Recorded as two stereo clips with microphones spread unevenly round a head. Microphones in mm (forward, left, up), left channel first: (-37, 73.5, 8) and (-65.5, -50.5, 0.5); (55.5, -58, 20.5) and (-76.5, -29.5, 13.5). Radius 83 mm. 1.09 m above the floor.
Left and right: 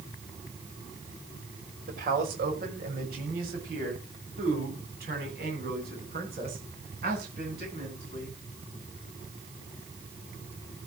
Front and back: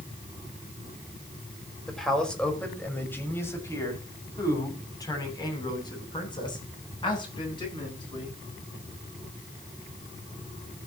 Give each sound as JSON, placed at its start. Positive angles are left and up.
{"t": 1.9, "sound": "a man speaking", "azimuth_deg": -100, "distance_m": 5.0}